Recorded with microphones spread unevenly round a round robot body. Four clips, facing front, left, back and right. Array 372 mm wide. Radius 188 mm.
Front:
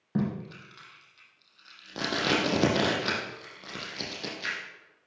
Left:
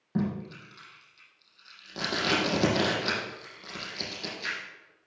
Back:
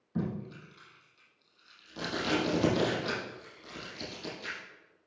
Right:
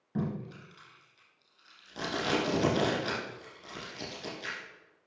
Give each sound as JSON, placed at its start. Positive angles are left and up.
{"t": 0.1, "sound": "tape being pulled", "azimuth_deg": 10, "distance_m": 5.5}